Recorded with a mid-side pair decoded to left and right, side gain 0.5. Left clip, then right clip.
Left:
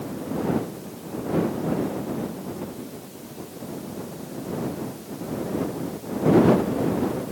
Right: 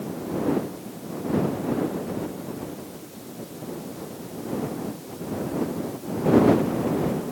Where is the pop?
I don't hear a pop.